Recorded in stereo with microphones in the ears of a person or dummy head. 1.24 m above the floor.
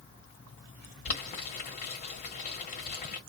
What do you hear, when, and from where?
1.1 s boiling: 45° left (ahead or behind), 1.5 m